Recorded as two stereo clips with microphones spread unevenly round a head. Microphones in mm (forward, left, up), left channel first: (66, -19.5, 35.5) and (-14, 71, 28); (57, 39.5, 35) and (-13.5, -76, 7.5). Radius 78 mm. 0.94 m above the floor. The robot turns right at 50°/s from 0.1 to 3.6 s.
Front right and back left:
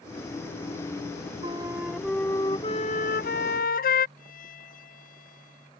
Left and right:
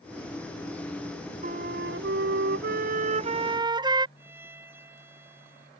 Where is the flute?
170° right; by 4.1 s 60° right.